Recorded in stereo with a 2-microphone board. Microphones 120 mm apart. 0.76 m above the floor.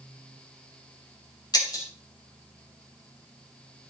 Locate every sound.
1.5 s breaking glass: 35° left (ahead or behind), 2.5 m